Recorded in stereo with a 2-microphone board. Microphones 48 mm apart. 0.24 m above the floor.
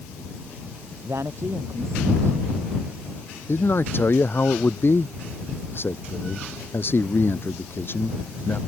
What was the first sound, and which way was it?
A man speaking, 75° right (ahead or behind).